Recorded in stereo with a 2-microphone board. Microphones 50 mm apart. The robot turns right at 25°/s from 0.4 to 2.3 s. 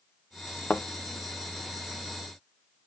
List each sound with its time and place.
0.7 s a thud: 35° left (ahead or behind), 1.0 m; by 0.8 s 30° left (ahead or behind), 1.0 m